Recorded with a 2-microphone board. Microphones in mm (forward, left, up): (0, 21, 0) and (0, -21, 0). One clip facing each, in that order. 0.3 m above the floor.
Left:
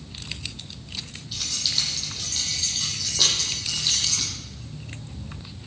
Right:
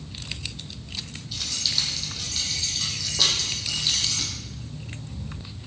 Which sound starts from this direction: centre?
Keys jangling, at 1.3 s.